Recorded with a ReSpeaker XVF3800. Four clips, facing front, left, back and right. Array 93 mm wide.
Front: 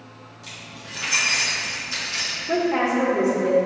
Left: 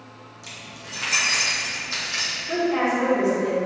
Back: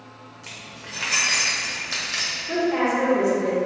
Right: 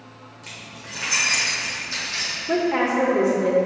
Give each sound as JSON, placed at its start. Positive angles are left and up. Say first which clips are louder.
{"t": 0.4, "sound": "keys jangling", "louder": "right 1 dB, even", "azimuth_deg": -145, "distance_m": 1.6}
{"t": 2.5, "sound": "a woman speaking", "louder": "right 1 dB, front 1 dB", "azimuth_deg": -75, "distance_m": 1.4}